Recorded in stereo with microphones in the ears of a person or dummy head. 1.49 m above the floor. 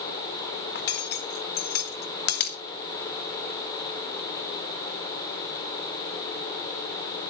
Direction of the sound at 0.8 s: 55° left (ahead or behind).